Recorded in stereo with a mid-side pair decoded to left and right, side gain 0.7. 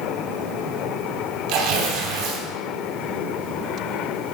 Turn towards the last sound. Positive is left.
turn(degrees=-70)